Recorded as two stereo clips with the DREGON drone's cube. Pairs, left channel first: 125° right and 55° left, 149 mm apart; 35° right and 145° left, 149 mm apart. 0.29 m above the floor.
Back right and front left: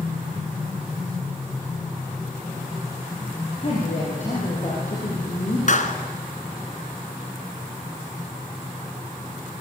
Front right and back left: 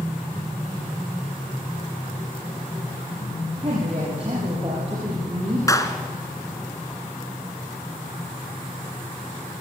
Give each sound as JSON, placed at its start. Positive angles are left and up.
{"t": 3.6, "sound": "a woman speaking", "azimuth_deg": -165, "distance_m": 8.5}
{"t": 5.7, "sound": "a clap", "azimuth_deg": -100, "distance_m": 2.0}